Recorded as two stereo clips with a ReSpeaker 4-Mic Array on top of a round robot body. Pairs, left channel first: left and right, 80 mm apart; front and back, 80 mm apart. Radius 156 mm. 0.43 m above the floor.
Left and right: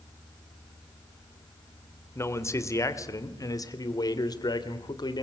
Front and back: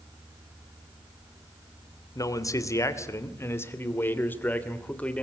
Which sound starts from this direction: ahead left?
A man speaking, at 2.1 s.